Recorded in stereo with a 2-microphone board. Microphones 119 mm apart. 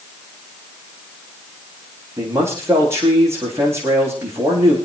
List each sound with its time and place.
2.2 s a man speaking: 25° right (ahead or behind), 8.5 m